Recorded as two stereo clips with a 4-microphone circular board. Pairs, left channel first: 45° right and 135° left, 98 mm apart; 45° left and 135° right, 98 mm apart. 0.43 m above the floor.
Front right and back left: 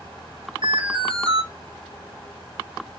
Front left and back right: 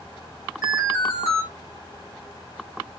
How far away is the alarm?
About 5 m.